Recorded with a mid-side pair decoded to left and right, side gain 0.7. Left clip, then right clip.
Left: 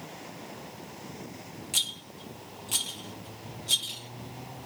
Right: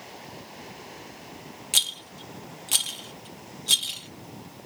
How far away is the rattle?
About 0.8 m.